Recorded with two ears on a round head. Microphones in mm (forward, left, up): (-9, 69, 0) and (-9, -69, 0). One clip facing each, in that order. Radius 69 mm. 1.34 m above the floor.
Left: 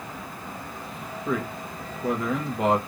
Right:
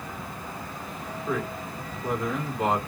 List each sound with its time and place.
1.2 s a man speaking: 50° left (ahead or behind), 2.0 m